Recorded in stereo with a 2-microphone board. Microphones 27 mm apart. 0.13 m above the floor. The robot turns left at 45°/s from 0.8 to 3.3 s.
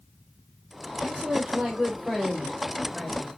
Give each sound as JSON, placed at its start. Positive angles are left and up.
{"t": 1.0, "sound": "a woman speaking", "azimuth_deg": -100, "distance_m": 4.0}